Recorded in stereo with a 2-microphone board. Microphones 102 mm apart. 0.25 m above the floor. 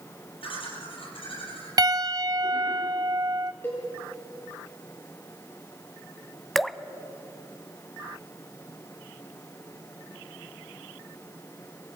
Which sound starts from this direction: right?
A piano, at 1.8 s.